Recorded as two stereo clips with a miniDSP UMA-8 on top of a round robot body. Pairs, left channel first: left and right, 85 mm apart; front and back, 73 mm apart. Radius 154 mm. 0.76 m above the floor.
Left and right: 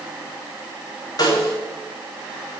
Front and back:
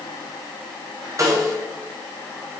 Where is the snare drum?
135° left, 4 m.